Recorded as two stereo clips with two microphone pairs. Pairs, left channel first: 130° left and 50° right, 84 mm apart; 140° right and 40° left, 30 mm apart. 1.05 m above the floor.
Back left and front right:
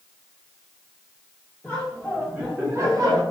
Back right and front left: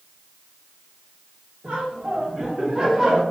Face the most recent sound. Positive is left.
turn(degrees=-40)